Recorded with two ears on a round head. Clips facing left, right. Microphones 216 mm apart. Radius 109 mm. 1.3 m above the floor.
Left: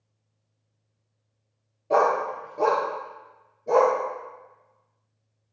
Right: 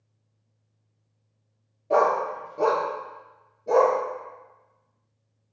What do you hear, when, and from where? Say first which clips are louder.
1.9 s a dog barking: even; 5° left (ahead or behind), 0.9 m; by 4.0 s 5° right (ahead or behind), 1.9 m